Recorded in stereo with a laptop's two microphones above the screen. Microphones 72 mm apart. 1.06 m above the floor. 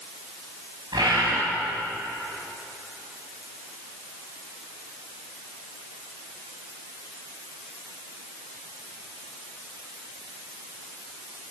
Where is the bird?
80° right, 6 m.